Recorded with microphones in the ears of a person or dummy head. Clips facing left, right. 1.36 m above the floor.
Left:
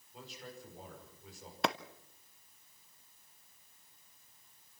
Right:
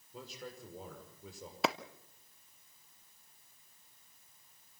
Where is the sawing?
I don't hear sawing.